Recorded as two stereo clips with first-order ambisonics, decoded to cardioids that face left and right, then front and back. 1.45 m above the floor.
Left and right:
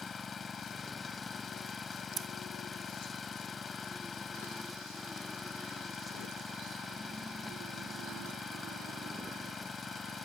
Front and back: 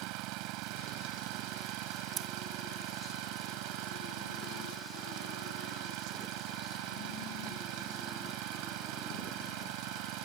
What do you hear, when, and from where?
0.0 s an engine running: 165° left
2.2 s scissors: 135° right